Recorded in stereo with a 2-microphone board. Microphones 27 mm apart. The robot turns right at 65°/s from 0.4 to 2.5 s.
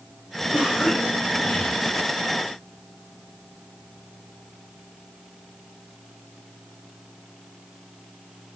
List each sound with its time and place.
0.5 s a cough: 30° right, 6.5 m; by 1.8 s 50° left, 6.5 m